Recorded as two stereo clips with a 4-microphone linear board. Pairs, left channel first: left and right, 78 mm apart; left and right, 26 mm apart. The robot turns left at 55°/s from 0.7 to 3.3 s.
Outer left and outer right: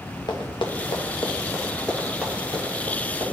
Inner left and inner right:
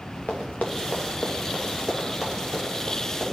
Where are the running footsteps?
75° left (ahead or behind), 1.4 m; by 3.2 s 80° right, 3.5 m.